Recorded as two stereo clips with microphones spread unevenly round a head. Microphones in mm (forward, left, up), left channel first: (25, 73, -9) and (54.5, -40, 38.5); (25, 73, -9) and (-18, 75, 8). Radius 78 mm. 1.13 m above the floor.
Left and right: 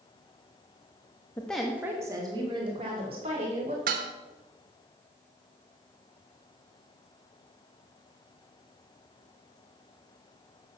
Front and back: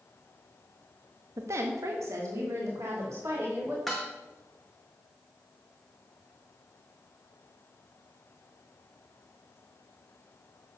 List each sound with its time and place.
1.4 s a woman speaking: straight behind, 1.0 m; by 3.8 s 125° right, 3.5 m
3.9 s dishes clattering: 95° right, 1.0 m